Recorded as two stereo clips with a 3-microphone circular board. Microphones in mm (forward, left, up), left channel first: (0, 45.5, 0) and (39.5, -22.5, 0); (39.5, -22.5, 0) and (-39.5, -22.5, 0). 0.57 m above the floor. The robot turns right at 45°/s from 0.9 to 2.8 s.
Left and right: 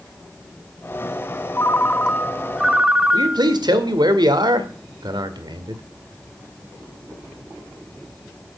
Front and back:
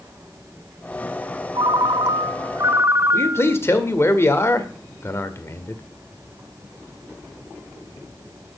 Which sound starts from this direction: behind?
A ringtone, at 1.6 s.